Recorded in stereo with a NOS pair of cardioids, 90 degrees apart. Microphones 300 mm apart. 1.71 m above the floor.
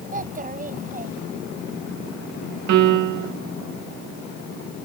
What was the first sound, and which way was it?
A child speaking, 25° right.